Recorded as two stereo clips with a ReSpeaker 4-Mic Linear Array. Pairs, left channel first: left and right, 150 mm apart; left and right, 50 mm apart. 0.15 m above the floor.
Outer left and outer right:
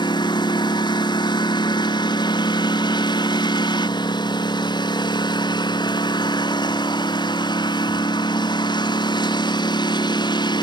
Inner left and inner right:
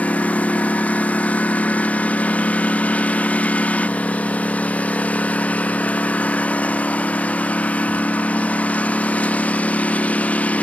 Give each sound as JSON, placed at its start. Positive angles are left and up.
{"t": 0.0, "sound": "a lawn mower", "side_deg": 30}